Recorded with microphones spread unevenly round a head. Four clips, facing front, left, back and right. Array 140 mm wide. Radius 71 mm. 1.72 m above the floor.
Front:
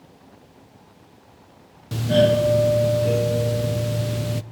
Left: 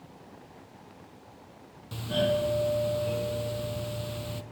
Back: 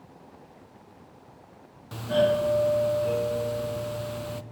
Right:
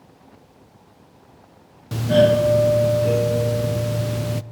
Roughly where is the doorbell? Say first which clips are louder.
Right 12 dB, front 5 dB; ahead right.